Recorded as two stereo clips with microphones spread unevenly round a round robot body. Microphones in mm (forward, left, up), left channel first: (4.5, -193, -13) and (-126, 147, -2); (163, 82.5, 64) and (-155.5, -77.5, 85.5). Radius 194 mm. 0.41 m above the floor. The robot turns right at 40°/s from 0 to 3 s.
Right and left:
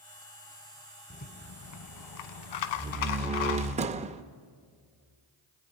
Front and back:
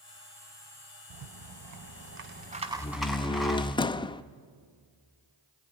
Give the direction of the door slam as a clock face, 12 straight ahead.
10 o'clock.